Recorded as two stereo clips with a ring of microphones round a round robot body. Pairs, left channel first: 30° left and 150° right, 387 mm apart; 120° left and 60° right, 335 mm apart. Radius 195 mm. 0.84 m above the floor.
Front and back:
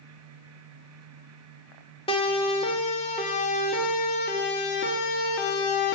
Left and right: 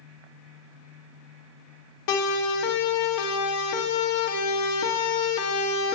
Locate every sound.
2.1 s a siren: 105° left, 4.5 m; by 6.0 s 75° left, 2.5 m